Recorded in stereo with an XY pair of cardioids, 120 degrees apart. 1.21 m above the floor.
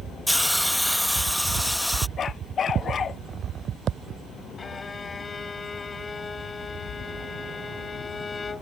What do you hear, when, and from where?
0.3 s a hiss: 5° left
2.2 s a dog barking: 40° left
4.6 s a violin: 25° left